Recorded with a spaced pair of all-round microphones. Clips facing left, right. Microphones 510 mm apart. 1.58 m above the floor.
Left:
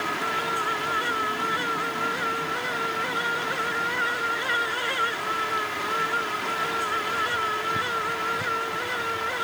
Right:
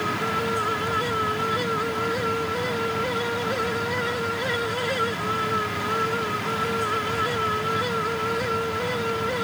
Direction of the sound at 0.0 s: 60° right (ahead or behind).